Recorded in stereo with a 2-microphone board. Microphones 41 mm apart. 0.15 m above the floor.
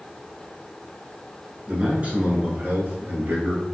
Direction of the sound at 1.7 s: 30° right (ahead or behind).